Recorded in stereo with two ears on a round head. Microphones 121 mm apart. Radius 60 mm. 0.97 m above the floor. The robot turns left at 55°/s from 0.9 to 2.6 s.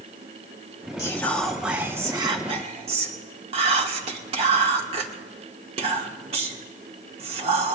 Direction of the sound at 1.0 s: 25° left (ahead or behind).